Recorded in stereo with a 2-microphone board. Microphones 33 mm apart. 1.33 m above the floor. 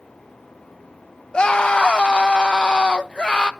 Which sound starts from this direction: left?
A scream, at 1.3 s.